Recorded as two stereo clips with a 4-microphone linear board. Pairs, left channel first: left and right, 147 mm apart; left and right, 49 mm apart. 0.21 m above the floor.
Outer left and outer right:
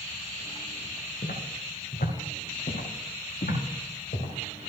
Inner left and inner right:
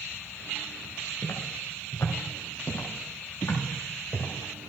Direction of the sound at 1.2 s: 80° left.